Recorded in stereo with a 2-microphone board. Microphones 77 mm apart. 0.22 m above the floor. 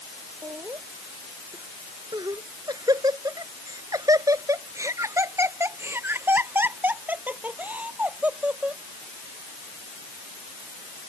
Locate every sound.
0.4 s laughter: 45° right (ahead or behind); by 8.8 s 15° right (ahead or behind)